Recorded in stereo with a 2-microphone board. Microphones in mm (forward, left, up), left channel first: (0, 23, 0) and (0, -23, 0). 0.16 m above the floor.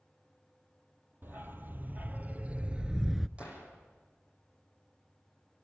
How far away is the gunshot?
About 7.5 m.